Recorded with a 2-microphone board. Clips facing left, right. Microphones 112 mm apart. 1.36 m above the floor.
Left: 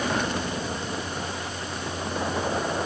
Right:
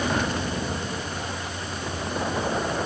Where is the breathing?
I don't hear breathing.